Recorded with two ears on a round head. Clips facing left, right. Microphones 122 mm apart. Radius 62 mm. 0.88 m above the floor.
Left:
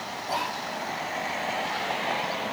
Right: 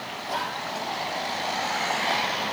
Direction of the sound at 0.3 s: 10° left (ahead or behind).